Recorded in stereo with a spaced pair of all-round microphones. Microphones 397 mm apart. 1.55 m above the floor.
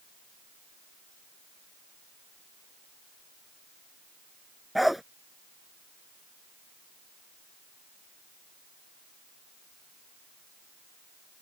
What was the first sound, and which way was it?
A dog barking, centre (ahead or behind).